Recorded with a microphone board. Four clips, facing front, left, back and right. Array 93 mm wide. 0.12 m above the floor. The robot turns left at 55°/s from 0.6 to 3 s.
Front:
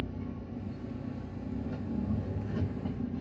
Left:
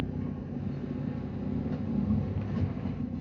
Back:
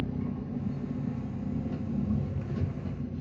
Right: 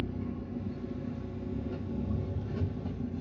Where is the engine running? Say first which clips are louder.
Left 1 dB, back 5 dB; 170° left, 2.5 m; by 3.2 s 40° left, 2.5 m.